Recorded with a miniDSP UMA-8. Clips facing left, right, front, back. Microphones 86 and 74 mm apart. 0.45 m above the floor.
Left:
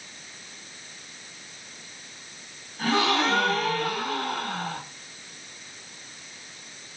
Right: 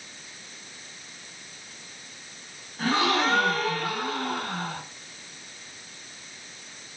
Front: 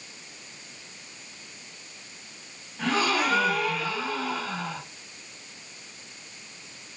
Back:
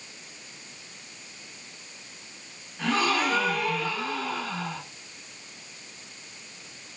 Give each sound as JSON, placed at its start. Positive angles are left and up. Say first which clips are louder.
{"t": 2.8, "sound": "a gasp", "louder": "even, even", "azimuth_deg": -80, "distance_m": 1.7}